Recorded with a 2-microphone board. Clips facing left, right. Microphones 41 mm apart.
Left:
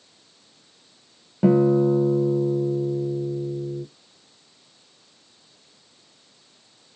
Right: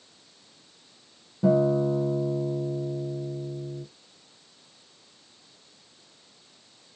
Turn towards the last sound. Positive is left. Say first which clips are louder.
# left 5 dB
turn(degrees=85)